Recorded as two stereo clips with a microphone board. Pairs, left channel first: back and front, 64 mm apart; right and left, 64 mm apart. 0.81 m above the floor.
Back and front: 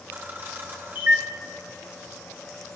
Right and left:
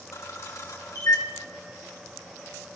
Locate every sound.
0.1 s a camera shutter: 55° right, 2.5 m